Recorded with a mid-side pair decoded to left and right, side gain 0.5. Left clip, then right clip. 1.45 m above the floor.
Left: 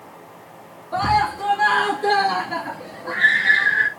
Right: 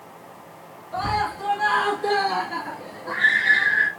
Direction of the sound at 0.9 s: 55° left.